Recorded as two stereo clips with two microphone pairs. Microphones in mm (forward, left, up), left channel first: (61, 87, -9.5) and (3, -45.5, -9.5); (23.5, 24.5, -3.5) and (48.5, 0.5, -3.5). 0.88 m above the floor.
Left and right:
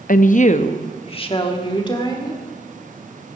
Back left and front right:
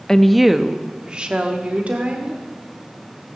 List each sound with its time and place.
0.1 s a woman speaking: 60° left, 0.6 m; by 2.4 s 5° left, 2.5 m